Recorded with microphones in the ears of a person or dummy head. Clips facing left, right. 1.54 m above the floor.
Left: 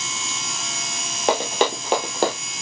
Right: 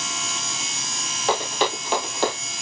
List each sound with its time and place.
1.3 s running footsteps: 40° left (ahead or behind), 2 m; by 2.4 s 45° left (ahead or behind), 2.5 m